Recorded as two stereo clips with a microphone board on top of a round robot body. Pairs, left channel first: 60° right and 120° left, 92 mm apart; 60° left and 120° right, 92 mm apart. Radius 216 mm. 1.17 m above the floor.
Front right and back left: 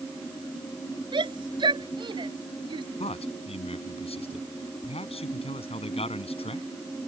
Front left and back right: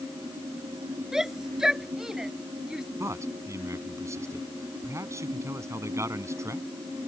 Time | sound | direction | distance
1.1 | a shout | 155° left | ?
3.0 | a man speaking | 60° right | ?